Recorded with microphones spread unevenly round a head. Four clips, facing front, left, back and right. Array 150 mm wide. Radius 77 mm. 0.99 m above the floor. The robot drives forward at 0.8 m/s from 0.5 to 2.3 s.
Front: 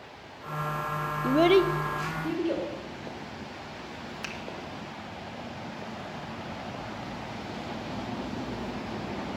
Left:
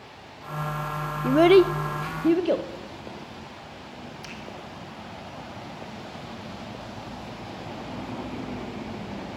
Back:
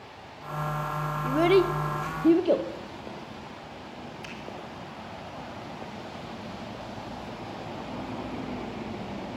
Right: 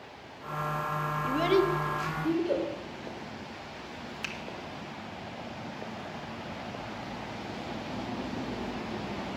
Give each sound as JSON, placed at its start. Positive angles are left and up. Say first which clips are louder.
{"t": 1.2, "sound": "a child speaking", "louder": "left 10 dB, front 1 dB", "azimuth_deg": 60, "distance_m": 0.5}
{"t": 4.2, "sound": "a finger snap", "louder": "even, front 2 dB", "azimuth_deg": -15, "distance_m": 1.8}